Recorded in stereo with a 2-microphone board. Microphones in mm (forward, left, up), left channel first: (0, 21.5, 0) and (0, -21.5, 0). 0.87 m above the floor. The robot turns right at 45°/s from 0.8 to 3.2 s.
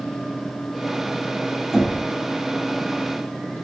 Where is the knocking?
5° right (ahead or behind), 0.8 m; by 2.0 s 10° left (ahead or behind), 0.8 m.